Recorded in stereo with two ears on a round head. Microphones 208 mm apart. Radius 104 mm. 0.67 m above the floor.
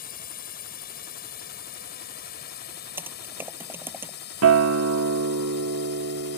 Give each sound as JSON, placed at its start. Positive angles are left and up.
{"t": 0.0, "sound": "a drone", "side_deg": 40}
{"t": 3.0, "sound": "typing on a keyboard", "side_deg": -10}
{"t": 4.4, "sound": "a guitar", "side_deg": -60}